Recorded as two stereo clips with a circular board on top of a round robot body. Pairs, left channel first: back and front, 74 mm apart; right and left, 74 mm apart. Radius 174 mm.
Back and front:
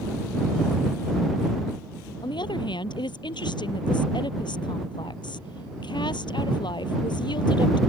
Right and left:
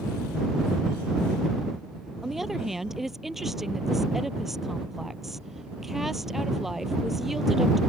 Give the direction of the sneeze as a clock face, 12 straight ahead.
No sneeze in this recording.